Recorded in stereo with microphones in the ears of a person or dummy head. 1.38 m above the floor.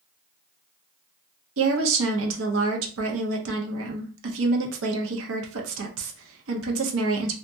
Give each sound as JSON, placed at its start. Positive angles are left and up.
{"t": 1.6, "sound": "a woman speaking", "side_deg": -75, "distance_m": 0.8}